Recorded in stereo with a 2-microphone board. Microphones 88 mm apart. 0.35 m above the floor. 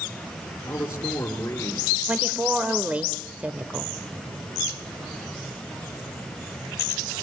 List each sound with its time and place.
0.6 s a man speaking: 30° left (ahead or behind), 5 m
2.1 s a woman speaking: 15° right (ahead or behind), 1.1 m